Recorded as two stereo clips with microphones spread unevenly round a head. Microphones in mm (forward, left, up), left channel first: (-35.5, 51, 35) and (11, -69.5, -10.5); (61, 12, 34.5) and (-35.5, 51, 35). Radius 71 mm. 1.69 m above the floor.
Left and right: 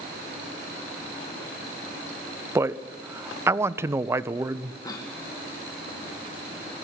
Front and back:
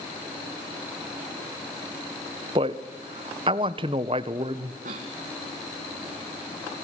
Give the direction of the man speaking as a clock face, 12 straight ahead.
5 o'clock.